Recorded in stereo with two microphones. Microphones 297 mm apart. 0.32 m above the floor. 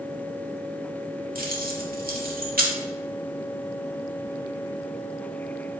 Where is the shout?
No shout in this recording.